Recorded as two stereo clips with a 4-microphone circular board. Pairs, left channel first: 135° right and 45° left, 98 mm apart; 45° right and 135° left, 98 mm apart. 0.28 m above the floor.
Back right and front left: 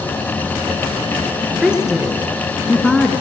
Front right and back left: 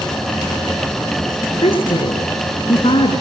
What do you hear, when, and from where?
1.6 s a woman speaking: 35° right, 3.5 m; by 3.1 s 50° right, 3.5 m